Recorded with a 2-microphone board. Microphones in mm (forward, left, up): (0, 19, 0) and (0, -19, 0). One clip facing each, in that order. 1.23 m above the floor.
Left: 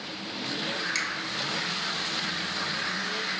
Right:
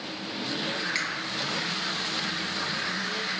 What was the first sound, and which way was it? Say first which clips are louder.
A finger snap: even; 15° right (ahead or behind).